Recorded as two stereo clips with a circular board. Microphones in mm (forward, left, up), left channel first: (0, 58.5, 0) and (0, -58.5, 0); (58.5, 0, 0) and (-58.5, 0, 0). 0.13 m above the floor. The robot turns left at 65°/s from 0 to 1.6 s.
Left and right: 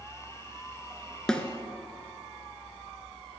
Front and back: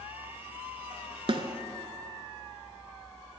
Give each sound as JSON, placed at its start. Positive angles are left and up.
{"t": 1.3, "sound": "a snare drum", "azimuth_deg": 175, "distance_m": 0.7}